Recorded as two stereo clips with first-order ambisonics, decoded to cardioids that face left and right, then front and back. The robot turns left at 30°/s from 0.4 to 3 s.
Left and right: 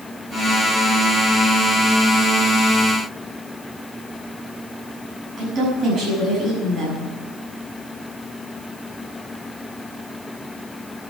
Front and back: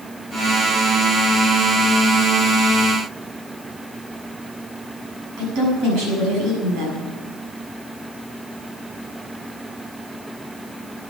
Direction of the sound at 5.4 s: 145° right.